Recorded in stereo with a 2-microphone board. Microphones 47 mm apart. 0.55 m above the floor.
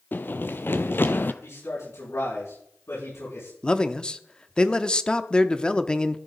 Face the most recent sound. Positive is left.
turn(degrees=20)  # may be behind; listen again after turning